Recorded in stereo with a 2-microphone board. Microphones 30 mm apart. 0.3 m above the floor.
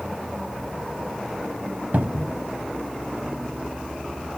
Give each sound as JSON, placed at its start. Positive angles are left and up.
{"t": 1.9, "sound": "a cupboard door", "side_deg": -65}